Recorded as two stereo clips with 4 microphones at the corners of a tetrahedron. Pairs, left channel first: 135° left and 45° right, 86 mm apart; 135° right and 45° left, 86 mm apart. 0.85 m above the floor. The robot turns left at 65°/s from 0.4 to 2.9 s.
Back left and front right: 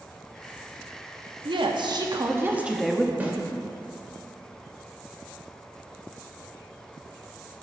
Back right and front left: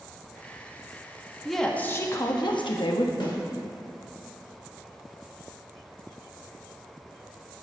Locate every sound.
1.4 s a woman speaking: 40° right, 0.9 m; by 3.1 s 135° right, 0.9 m
3.2 s a snare drum: 115° right, 1.7 m